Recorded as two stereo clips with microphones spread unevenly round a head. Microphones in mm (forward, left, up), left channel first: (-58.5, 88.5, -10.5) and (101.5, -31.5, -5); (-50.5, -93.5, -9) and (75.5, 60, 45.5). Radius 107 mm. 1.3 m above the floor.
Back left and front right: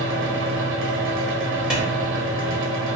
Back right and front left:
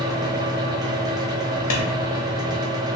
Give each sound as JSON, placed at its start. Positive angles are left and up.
{"t": 0.0, "sound": "a fan", "azimuth_deg": -30, "distance_m": 0.8}
{"t": 1.7, "sound": "a clap", "azimuth_deg": -125, "distance_m": 1.4}